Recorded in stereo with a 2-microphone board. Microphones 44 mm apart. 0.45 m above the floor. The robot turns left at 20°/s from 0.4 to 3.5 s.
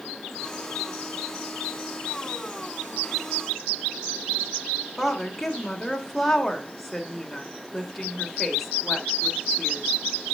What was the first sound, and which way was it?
A woman speaking, 5° left (ahead or behind).